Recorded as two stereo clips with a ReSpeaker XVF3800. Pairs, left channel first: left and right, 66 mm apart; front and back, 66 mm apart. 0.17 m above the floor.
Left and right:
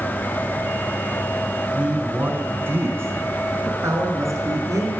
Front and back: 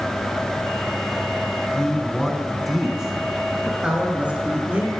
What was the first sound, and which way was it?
A man speaking, 55° right.